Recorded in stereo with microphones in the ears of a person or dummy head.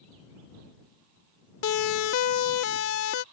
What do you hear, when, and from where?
1.6 s a siren: 85° left; by 3.2 s 90° left